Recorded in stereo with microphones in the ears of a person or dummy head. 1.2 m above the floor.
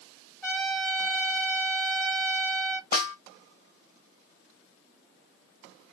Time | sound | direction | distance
0.4 | a trumpet | 20° left (ahead or behind) | 2.5 m
2.9 | a snare drum | 55° left (ahead or behind) | 2.5 m